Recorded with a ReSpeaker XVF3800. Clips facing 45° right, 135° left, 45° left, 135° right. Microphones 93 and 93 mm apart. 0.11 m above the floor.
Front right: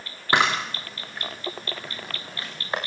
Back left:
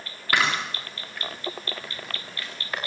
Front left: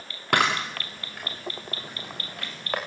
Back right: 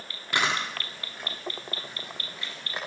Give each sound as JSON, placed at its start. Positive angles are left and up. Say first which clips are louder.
{"t": 0.3, "sound": "a camera shutter", "louder": "front right 3 dB, front left 4 dB", "azimuth_deg": 20, "distance_m": 6.5}